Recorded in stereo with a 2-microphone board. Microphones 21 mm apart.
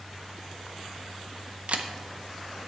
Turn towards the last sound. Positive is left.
turn(degrees=-75)  # may be behind; listen again after turning